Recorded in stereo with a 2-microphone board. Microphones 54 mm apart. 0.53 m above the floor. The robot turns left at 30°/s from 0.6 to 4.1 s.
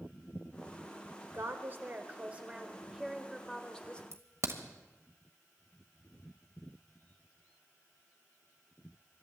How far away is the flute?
No flute in this recording.